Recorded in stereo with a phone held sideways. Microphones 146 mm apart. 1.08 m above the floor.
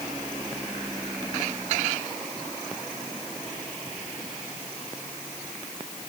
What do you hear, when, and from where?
Only background noise.